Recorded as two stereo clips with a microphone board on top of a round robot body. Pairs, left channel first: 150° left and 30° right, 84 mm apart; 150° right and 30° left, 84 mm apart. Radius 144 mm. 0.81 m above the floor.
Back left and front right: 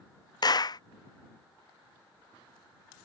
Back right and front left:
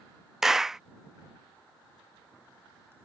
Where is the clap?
115° left.